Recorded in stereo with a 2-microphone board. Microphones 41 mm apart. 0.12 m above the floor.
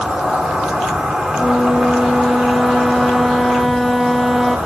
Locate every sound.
0.0 s an insect: 20° right (ahead or behind), 9.5 m
1.4 s a flute: 5° left (ahead or behind), 1.7 m